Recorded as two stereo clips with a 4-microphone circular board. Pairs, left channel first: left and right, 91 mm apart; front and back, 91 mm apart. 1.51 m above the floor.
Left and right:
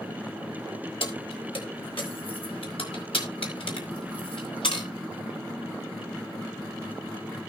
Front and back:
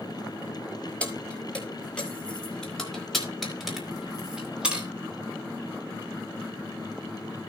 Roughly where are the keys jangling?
Left.